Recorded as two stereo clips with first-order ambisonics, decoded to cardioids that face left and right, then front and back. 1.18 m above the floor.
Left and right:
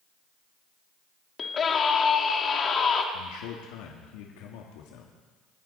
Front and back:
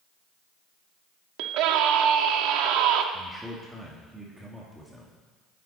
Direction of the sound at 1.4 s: 155° left.